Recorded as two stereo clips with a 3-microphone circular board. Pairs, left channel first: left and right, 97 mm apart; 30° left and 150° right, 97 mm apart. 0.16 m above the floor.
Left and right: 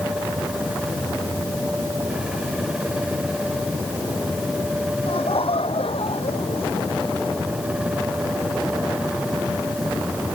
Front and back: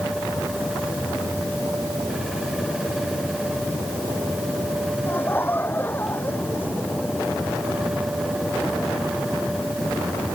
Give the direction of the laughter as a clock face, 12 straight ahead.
9 o'clock.